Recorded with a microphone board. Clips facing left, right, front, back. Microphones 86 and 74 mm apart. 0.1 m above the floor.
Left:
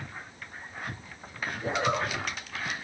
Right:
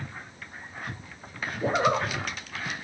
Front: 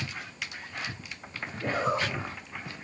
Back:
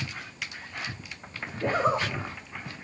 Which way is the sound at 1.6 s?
130° right.